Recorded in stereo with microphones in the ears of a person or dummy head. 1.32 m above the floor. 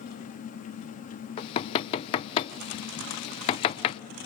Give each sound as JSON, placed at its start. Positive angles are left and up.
{"t": 0.0, "sound": "an engine running", "side_deg": 40, "distance_m": 1.1}
{"t": 1.4, "sound": "knocking", "side_deg": 30, "distance_m": 0.5}